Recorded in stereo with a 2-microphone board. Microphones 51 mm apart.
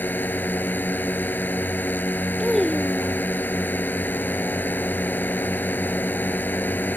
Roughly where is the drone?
Left.